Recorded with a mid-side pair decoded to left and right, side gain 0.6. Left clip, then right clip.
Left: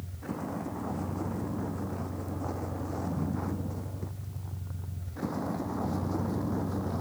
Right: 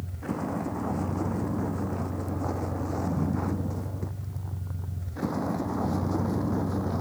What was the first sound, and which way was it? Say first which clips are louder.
A vehicle: right 5 dB; 30° right.